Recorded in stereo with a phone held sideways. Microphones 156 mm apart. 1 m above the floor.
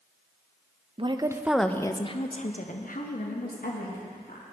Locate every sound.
1.0 s a woman speaking: 35° right (ahead or behind), 0.6 m; by 4.4 s 80° left, 1.9 m